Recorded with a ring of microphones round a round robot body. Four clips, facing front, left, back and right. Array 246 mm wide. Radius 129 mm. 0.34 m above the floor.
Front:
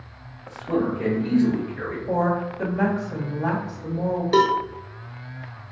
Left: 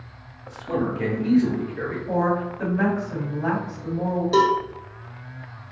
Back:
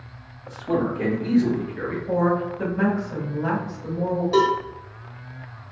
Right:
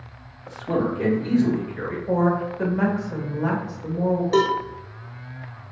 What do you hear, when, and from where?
0.5 s a man speaking: 115° right, 1.0 m; by 2.0 s 120° right, 2.5 m
2.1 s a woman speaking: 70° right, 1.6 m
4.3 s a cowbell: 15° right, 0.7 m